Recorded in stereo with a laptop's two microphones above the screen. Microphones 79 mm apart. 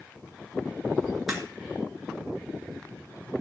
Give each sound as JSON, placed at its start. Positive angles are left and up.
{"t": 1.3, "sound": "a crack", "side_deg": 0, "distance_m": 2.0}